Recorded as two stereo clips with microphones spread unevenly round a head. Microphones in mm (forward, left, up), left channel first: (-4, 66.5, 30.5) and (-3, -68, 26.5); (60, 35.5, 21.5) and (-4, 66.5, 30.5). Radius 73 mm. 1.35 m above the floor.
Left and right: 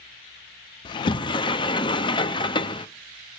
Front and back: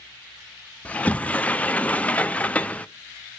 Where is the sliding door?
40° left, 0.5 m.